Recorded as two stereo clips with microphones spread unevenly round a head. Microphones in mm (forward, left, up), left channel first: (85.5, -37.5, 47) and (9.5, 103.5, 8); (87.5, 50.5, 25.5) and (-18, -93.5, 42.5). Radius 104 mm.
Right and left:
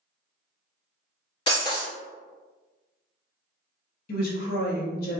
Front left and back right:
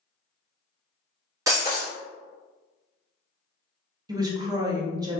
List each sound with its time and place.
1.5 s breaking glass: 70° right, 1.0 m
4.1 s a woman speaking: 60° right, 0.8 m